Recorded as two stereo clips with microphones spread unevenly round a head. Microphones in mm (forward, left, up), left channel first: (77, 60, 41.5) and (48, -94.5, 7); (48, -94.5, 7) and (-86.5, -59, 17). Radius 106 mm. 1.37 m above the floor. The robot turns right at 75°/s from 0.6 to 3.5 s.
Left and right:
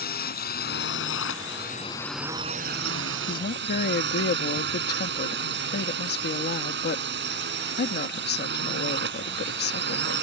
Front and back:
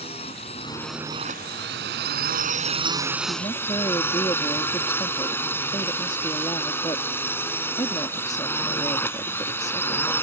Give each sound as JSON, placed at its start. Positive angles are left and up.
{"t": 0.0, "sound": "a drone", "azimuth_deg": 50}
{"t": 3.3, "sound": "a woman speaking", "azimuth_deg": 45}